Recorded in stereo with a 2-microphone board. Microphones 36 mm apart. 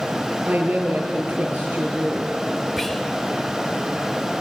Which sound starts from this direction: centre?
Whispering, at 2.8 s.